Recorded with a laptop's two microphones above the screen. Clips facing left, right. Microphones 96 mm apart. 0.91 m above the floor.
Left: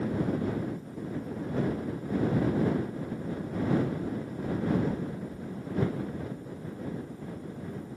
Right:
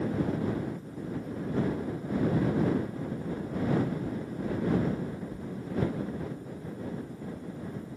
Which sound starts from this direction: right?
Knocking, at 3.6 s.